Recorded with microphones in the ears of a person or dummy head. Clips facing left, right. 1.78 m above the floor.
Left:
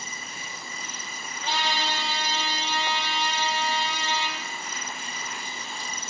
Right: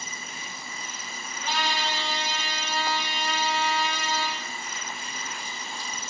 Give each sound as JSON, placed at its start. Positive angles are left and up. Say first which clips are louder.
{"t": 1.4, "sound": "a trumpet", "louder": "even", "side_deg": 25, "distance_m": 0.7}